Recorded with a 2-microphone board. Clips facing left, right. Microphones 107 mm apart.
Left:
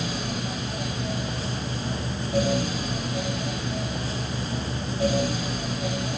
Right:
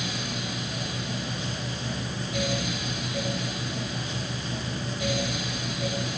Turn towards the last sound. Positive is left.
No sound to turn to.